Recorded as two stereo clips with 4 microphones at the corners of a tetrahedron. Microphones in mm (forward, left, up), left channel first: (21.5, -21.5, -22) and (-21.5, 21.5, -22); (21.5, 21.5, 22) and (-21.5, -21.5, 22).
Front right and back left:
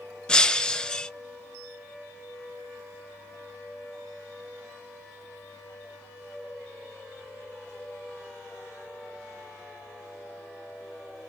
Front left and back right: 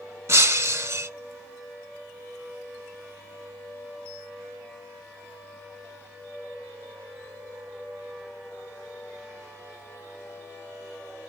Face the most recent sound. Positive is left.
turn(degrees=-115)